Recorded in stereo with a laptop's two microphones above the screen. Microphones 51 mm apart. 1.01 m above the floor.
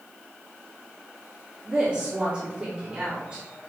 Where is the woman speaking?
20° right (ahead or behind), 3 m.